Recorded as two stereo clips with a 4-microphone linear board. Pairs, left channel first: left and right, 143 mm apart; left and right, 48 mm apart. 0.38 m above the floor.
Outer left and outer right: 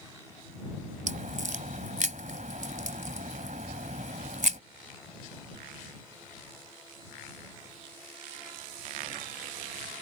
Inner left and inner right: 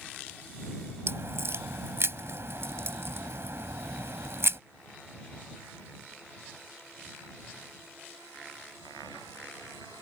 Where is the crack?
65° right (ahead or behind).